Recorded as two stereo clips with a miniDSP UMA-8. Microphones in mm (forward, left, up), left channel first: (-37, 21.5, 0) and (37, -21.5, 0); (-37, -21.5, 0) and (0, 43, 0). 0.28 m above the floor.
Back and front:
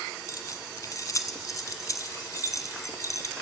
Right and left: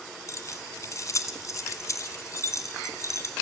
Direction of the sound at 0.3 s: 165° right.